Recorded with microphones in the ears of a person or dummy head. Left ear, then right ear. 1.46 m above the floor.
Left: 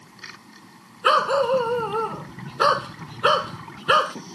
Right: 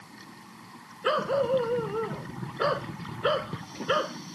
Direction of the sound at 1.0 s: 70° left (ahead or behind).